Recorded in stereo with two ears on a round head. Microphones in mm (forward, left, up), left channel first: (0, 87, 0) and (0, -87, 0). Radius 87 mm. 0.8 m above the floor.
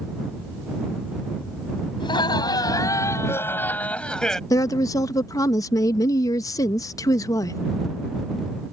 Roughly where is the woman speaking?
Centre.